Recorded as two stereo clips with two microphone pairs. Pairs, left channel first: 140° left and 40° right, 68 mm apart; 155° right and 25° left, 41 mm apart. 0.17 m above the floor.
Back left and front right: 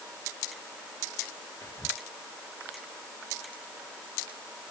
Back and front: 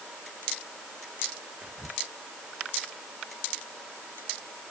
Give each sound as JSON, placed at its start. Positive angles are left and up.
{"t": 1.6, "sound": "whispering", "azimuth_deg": 95}